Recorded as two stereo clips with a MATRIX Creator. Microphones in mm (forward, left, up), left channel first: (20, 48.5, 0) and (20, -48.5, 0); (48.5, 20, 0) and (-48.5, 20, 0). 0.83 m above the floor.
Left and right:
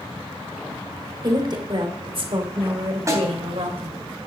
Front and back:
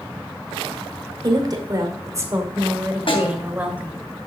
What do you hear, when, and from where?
1.2 s a woman speaking: 135° right, 2 m; by 4.0 s 100° right, 3 m
3.1 s a snare drum: 30° right, 3 m